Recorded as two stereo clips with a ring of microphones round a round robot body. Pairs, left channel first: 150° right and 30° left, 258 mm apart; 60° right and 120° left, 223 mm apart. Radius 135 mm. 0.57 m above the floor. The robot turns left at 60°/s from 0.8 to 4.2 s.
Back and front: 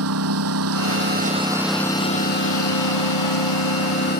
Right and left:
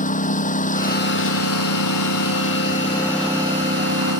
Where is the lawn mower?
5° right; by 4.2 s 150° left.